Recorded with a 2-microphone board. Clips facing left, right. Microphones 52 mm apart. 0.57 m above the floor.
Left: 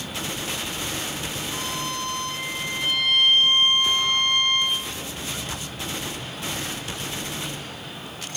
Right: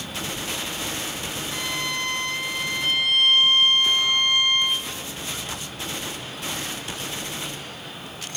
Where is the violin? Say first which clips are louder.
Right 3 dB; 40° left (ahead or behind), 1.2 m.